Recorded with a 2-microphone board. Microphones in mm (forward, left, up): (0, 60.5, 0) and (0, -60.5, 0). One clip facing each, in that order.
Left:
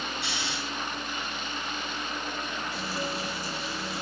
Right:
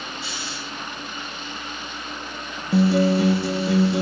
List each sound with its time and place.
0.2 s snoring: 60° left (ahead or behind), 4 m
2.7 s a guitar: 70° right (ahead or behind), 0.8 m